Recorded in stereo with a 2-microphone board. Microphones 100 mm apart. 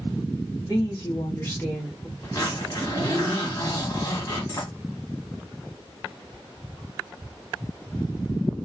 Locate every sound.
0.6 s a woman speaking: 45° left (ahead or behind), 1.5 m; by 2.1 s 5° left (ahead or behind), 1.1 m
2.2 s a zipper: 40° left (ahead or behind), 1.6 m